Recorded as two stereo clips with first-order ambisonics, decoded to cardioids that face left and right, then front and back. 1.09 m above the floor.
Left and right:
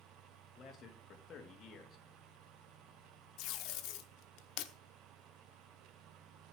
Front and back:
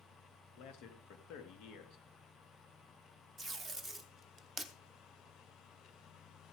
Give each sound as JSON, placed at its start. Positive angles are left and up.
{"t": 0.6, "sound": "a man speaking", "azimuth_deg": 30, "distance_m": 1.9}
{"t": 3.4, "sound": "tape being pulled", "azimuth_deg": 90, "distance_m": 0.9}